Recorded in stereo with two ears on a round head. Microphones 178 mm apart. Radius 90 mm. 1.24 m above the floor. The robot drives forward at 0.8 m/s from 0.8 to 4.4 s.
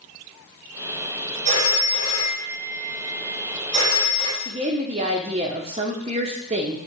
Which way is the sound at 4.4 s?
30° right (ahead or behind).